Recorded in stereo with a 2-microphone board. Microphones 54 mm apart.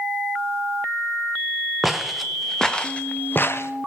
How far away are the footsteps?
About 1.7 m.